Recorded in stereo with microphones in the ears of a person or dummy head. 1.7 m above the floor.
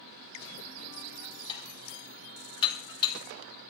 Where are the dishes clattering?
30° left (ahead or behind), 3 m.